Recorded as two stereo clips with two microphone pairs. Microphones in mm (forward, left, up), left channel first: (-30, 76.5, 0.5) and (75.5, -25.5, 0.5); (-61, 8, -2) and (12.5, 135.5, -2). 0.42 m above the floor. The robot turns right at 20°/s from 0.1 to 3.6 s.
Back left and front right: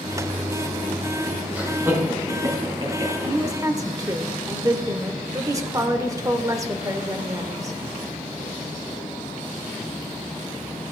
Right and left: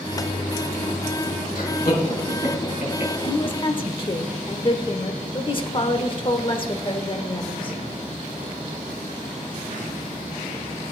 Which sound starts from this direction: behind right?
Laughter, at 1.6 s.